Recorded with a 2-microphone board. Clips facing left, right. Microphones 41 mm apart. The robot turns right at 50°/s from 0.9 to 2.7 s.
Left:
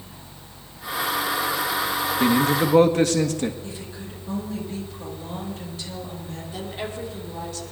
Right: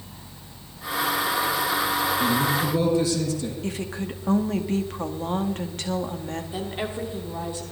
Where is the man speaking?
60° left (ahead or behind), 1.6 m; by 3.5 s 55° left (ahead or behind), 1.6 m.